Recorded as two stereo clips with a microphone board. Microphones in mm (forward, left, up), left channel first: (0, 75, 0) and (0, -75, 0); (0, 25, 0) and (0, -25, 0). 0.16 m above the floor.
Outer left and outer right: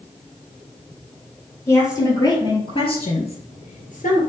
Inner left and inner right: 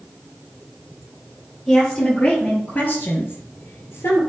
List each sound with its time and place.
1.7 s a woman speaking: 20° left (ahead or behind), 3.5 m; by 4.2 s 60° left (ahead or behind), 3.5 m